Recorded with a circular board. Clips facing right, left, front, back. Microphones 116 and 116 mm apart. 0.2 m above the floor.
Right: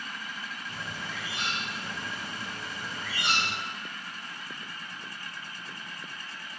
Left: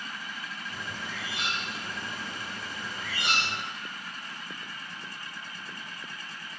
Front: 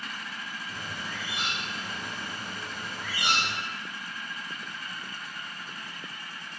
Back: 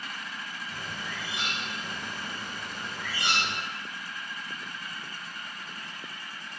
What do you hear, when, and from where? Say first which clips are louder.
0.7 s a bird: even, even; 75° right, 1.8 m